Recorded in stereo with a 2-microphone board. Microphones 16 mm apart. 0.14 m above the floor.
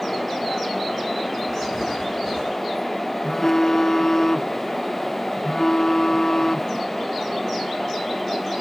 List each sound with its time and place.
1.5 s writing: 60° left (ahead or behind), 10 m
3.2 s a phone buzzing: 35° left (ahead or behind), 0.6 m